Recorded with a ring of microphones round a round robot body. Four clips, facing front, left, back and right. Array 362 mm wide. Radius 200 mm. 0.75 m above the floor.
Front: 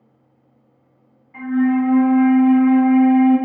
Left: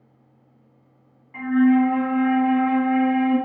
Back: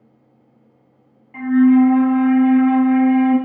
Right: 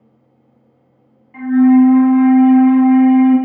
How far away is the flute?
About 1.6 m.